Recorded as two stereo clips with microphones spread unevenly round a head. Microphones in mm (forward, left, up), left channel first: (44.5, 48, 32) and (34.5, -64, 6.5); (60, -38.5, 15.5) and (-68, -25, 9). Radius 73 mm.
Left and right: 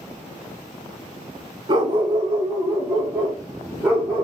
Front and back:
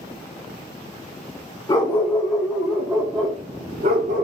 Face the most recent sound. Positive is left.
turn(degrees=165)